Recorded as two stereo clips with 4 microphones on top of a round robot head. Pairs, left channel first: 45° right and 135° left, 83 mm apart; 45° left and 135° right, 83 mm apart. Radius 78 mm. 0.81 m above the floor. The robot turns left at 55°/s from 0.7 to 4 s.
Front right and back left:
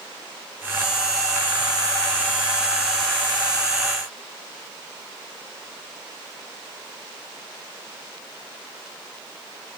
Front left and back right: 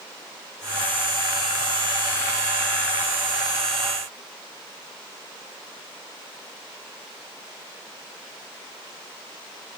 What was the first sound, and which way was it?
Only background noise.